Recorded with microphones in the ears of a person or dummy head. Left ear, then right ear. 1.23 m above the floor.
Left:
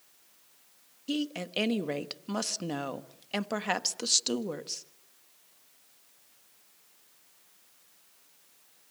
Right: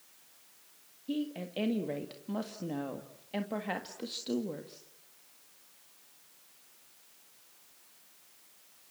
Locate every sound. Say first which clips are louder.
1.1 s a woman speaking: left 4 dB; 55° left (ahead or behind), 1.5 m